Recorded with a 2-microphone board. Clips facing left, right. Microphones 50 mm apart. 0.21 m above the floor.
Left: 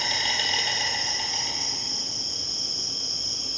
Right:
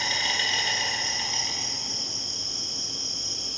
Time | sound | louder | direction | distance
0.0 | an insect | right 1 dB | 15° right (ahead or behind) | 1.0 m